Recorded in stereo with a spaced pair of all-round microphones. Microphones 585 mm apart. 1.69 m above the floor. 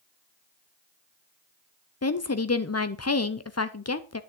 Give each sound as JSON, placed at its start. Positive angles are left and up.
{"t": 2.0, "sound": "a woman speaking", "side_deg": 25, "distance_m": 0.6}